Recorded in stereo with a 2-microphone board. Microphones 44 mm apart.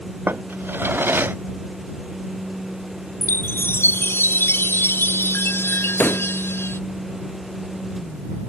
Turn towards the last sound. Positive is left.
turn(degrees=45)  # may be behind; listen again after turning